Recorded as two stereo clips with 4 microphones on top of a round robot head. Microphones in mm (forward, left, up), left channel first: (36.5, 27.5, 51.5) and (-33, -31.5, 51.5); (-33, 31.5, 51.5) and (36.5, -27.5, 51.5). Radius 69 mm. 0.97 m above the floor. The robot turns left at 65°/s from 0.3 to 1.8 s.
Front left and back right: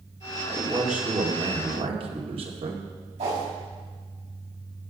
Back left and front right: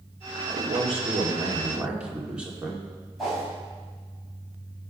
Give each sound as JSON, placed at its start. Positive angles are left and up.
{"t": 0.5, "sound": "a man speaking", "azimuth_deg": -35, "distance_m": 2.5}
{"t": 3.2, "sound": "a whoosh", "azimuth_deg": -130, "distance_m": 6.5}